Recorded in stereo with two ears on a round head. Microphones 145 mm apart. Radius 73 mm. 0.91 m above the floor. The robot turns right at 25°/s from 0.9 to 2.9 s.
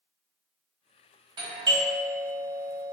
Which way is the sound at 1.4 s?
30° right (ahead or behind).